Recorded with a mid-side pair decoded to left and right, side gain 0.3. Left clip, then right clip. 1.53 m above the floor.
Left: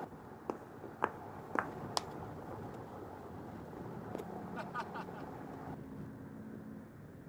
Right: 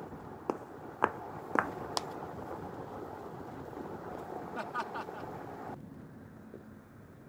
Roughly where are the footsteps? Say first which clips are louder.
Right 5 dB; ahead right.